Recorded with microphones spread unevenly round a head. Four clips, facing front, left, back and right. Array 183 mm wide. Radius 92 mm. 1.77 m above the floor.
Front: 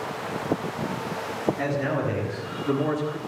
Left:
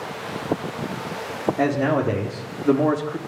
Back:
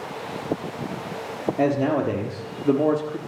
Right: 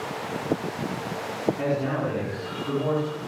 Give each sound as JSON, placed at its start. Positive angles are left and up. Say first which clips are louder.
{"t": 1.6, "sound": "a man speaking", "louder": "left 5 dB, back 5 dB", "azimuth_deg": 145, "distance_m": 5.0}